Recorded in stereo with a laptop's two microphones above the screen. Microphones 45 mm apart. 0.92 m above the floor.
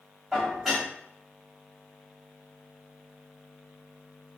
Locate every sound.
0.3 s dishes clattering: 5° right (ahead or behind), 1.3 m